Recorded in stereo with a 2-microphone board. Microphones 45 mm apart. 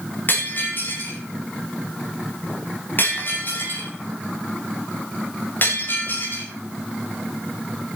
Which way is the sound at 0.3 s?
50° left (ahead or behind).